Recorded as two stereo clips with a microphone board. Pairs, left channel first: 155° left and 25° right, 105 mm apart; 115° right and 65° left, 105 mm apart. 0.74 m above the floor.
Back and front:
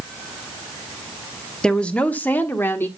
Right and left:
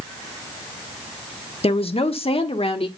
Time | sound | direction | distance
1.6 | a woman speaking | 120° right | 1.2 m